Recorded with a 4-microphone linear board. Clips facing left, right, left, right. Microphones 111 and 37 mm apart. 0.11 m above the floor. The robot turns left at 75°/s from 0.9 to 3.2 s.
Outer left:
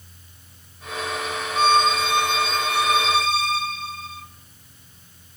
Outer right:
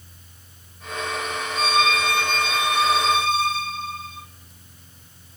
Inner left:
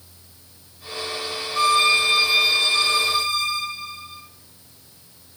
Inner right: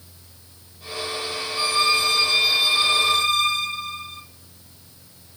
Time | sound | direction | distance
1.6 | a violin | 70° left | 0.6 m